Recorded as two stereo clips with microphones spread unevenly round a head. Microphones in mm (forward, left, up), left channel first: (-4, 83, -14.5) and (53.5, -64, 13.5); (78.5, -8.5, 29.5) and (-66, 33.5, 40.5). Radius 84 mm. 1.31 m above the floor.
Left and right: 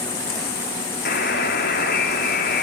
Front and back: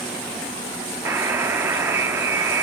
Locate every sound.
1.1 s a buzzer: 90° left, 3.5 m